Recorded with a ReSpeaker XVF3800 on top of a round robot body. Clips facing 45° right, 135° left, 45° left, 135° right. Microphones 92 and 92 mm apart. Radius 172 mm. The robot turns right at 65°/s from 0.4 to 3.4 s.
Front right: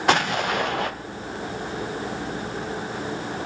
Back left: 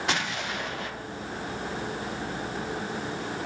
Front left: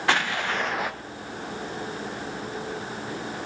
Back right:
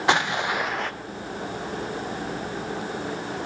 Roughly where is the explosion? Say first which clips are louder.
Front right 12 dB, back right 2 dB; ahead right.